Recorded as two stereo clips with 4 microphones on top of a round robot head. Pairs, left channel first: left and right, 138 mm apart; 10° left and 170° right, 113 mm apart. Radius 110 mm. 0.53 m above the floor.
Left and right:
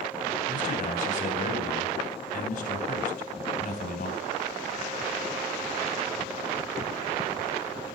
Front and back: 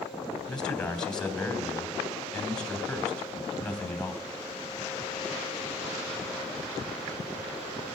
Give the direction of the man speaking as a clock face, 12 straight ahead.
9 o'clock.